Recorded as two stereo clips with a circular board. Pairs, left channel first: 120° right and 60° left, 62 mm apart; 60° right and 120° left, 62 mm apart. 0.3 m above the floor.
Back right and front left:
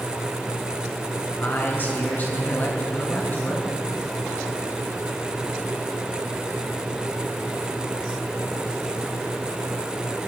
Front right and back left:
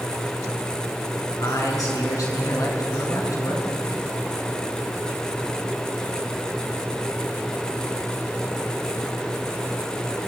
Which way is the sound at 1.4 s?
65° right.